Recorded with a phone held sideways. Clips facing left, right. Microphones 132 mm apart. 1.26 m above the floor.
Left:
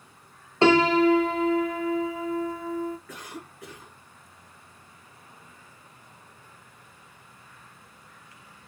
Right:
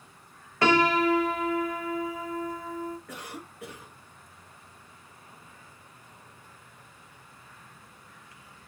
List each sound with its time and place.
0.6 s a piano: 25° left (ahead or behind), 0.6 m
3.1 s a cough: 65° right (ahead or behind), 1.8 m